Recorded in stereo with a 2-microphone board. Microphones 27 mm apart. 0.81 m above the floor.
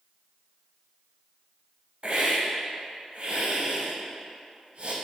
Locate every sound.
2.0 s a hiss: 45° right (ahead or behind), 0.8 m